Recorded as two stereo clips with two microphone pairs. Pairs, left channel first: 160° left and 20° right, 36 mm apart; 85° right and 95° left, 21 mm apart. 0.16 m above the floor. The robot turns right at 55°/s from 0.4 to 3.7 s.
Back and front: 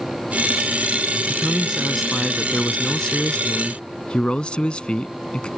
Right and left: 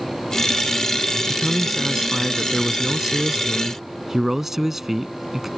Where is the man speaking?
30° left; by 5.5 s 160° left.